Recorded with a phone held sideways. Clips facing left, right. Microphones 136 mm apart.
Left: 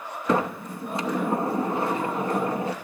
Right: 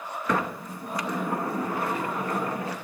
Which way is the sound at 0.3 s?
25° left (ahead or behind).